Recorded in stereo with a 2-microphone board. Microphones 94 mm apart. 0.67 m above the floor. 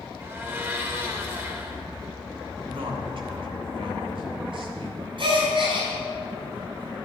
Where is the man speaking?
70° right (ahead or behind), 3.5 m.